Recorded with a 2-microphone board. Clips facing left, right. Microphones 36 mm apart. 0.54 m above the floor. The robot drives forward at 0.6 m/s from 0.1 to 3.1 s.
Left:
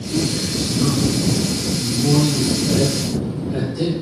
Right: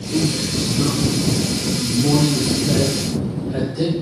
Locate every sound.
0.1 s a man speaking: 10° right (ahead or behind), 1.9 m; by 3.9 s 20° right (ahead or behind), 1.2 m